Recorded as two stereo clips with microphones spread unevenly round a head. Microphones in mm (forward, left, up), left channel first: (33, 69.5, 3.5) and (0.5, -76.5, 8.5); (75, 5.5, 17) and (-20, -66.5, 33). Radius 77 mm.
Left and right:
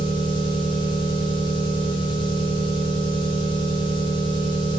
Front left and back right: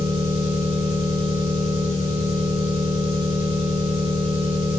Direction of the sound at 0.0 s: 20° left.